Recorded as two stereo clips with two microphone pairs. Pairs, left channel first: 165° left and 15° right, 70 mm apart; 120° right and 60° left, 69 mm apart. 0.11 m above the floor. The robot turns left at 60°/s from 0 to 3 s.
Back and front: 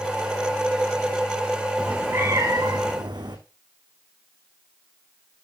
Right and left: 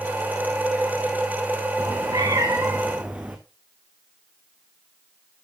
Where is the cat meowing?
60° left, 1.6 m; by 3.4 s 10° right, 1.6 m.